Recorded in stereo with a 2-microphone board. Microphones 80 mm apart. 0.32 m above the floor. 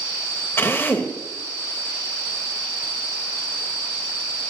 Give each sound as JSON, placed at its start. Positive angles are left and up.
{"t": 0.6, "sound": "a drill", "side_deg": 30, "distance_m": 1.0}